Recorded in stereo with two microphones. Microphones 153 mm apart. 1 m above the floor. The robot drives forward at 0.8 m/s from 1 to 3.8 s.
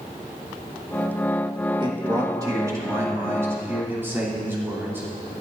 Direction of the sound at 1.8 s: 30° right (ahead or behind).